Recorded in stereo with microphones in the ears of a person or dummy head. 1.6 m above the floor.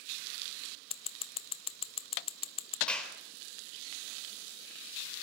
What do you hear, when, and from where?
0.9 s scissors: 35° left (ahead or behind), 0.7 m
2.9 s a clap: 5° left (ahead or behind), 4 m